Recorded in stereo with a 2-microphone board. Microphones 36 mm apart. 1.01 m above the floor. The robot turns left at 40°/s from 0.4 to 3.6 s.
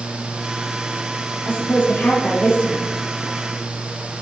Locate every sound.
1.4 s a woman speaking: 90° left, 2.5 m; by 2.9 s 30° left, 2.5 m